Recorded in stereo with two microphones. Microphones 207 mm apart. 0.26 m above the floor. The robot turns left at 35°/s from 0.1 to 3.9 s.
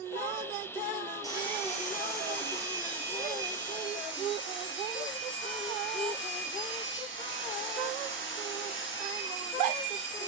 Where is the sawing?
165° left, 4.5 m; by 10.3 s 70° left, 4.5 m.